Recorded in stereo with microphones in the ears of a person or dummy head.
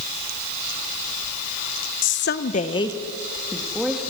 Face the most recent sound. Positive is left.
turn(degrees=-5)  # may be behind; listen again after turning